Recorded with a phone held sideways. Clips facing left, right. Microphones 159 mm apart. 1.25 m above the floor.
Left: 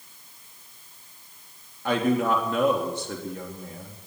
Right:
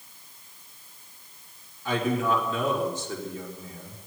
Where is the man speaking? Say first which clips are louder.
Left 3 dB; 65° left (ahead or behind), 3 m.